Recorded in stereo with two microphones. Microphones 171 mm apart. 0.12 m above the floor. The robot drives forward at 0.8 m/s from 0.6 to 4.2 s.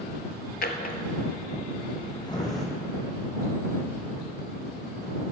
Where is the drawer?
65° left (ahead or behind), 0.7 m; by 2.6 s 20° left (ahead or behind), 1.8 m.